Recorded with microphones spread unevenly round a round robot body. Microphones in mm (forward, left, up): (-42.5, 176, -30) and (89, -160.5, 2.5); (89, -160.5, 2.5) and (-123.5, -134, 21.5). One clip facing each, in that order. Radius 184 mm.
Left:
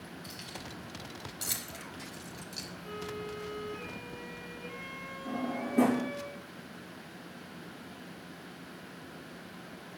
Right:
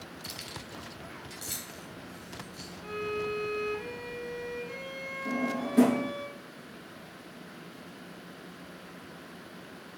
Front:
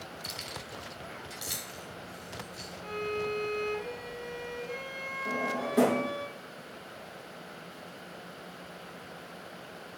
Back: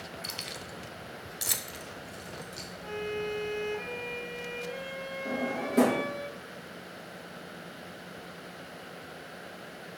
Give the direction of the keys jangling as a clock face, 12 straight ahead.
4 o'clock.